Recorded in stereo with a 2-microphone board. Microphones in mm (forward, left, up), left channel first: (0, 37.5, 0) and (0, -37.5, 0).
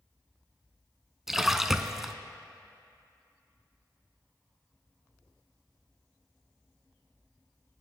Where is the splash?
5° right (ahead or behind), 0.5 m.